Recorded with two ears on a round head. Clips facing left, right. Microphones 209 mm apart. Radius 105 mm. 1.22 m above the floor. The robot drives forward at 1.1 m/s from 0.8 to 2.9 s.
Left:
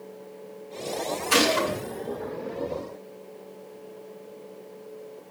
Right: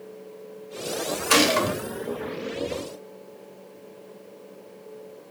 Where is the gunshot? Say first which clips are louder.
Right 2 dB; 80° right, 3 m; by 1.8 s 75° right (ahead or behind), 3 m.